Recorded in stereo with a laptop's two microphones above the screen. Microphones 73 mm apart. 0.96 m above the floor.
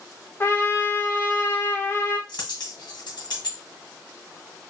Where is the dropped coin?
70° left (ahead or behind), 1.9 m.